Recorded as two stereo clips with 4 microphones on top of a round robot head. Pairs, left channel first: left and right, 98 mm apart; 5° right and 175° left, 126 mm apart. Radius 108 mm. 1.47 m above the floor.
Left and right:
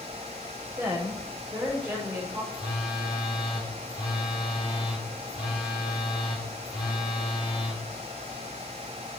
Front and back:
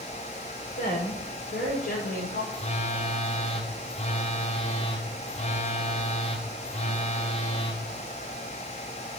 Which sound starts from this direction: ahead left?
A phone buzzing, at 2.5 s.